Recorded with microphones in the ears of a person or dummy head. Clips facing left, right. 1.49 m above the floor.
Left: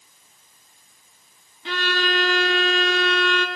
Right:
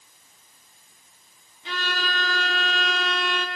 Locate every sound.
1.6 s a violin: 50° left (ahead or behind), 1.4 m